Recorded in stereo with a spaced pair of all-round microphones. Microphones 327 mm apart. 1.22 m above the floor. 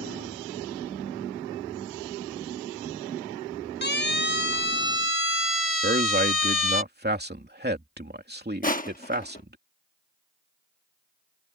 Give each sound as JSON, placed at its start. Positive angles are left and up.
{"t": 3.8, "sound": "a siren", "side_deg": 30}
{"t": 5.8, "sound": "a man speaking", "side_deg": -30}
{"t": 8.6, "sound": "crushing", "side_deg": 25}